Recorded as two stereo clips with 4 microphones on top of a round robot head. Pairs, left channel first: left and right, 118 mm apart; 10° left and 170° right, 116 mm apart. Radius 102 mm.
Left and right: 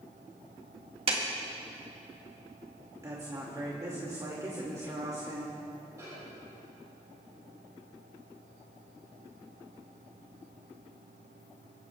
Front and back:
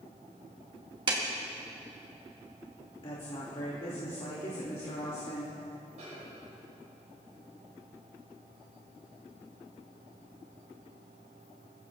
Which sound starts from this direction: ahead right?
A woman speaking, at 3.0 s.